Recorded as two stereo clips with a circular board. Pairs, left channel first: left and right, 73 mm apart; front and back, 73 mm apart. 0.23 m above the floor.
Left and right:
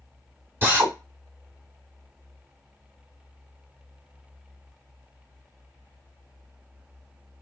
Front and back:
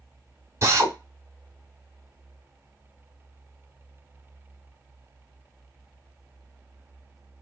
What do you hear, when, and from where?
0.6 s a drill: 145° right, 1.4 m